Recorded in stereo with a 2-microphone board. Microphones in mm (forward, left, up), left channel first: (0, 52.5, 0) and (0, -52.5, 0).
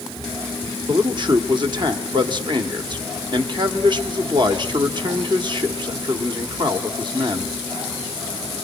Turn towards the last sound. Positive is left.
turn(degrees=-45)  # may be behind; listen again after turning